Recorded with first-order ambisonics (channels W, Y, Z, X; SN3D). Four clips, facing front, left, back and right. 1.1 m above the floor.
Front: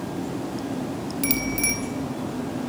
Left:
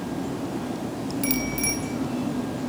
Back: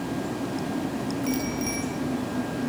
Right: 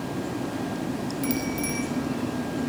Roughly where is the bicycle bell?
Ahead.